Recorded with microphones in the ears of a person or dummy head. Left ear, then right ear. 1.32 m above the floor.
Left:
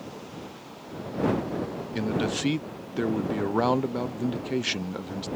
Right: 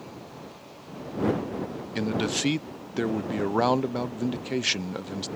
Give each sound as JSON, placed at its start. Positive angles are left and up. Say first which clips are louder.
{"t": 1.9, "sound": "a man speaking", "louder": "right 1 dB", "side_deg": -15}